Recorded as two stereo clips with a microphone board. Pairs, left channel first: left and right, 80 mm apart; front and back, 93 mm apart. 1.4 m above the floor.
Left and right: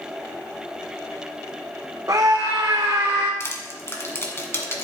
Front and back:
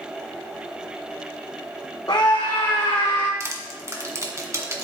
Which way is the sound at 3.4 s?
135° left.